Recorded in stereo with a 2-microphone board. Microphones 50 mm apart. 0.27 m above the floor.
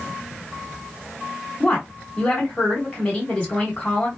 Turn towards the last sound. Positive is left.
turn(degrees=20)  # may be behind; listen again after turning